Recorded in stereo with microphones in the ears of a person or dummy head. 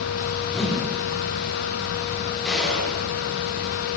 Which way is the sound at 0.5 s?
5° left (ahead or behind).